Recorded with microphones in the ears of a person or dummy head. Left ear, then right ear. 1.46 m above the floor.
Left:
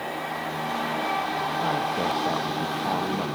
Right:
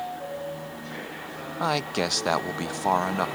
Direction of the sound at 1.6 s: 70° right (ahead or behind).